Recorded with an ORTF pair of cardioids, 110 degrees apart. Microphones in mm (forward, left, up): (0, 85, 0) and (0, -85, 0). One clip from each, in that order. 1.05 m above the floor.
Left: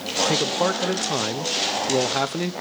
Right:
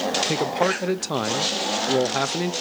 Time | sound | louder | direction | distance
0.2 | a man speaking | left 4 dB | straight ahead | 0.7 m